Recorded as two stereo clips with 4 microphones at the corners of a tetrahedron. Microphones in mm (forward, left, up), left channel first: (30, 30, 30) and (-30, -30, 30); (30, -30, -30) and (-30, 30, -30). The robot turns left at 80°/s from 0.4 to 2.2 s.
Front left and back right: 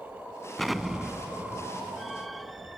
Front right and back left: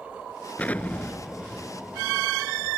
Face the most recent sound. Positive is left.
turn(degrees=-165)